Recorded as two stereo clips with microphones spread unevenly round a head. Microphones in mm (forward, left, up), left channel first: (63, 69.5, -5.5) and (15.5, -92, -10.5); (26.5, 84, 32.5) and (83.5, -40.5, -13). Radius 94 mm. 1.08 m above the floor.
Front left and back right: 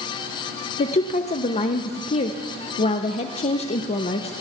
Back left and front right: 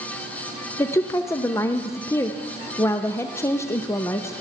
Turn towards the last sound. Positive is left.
turn(degrees=30)